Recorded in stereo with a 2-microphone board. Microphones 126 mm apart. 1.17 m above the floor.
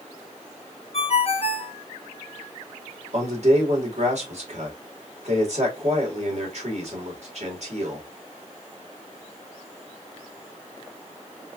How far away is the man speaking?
About 2 m.